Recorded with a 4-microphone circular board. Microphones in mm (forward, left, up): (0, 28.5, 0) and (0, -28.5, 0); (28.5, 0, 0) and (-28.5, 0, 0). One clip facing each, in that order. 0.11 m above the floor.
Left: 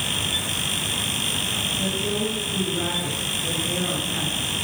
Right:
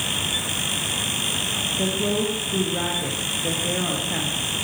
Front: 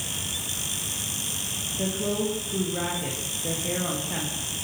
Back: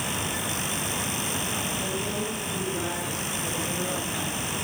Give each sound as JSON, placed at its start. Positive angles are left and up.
{"t": 1.8, "sound": "a woman speaking", "azimuth_deg": -65, "distance_m": 9.0}